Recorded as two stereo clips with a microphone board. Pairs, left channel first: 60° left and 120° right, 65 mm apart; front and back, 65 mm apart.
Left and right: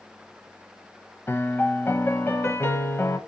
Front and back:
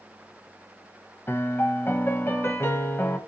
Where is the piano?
30° left, 0.5 m.